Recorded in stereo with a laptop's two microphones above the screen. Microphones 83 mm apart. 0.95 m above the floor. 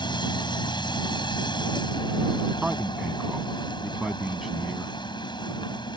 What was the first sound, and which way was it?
A machine running, 70° left (ahead or behind).